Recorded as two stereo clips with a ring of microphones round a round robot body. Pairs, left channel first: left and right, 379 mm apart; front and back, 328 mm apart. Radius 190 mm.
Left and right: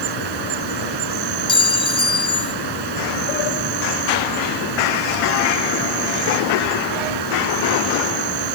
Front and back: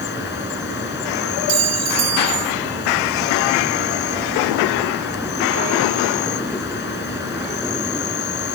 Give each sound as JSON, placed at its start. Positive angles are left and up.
{"t": 0.0, "sound": "an insect", "azimuth_deg": -65}
{"t": 1.5, "sound": "a clink", "azimuth_deg": 170}